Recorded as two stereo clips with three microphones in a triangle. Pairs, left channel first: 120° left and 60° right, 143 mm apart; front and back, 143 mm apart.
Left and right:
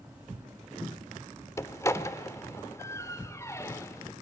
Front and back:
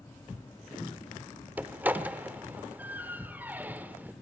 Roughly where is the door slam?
Behind left.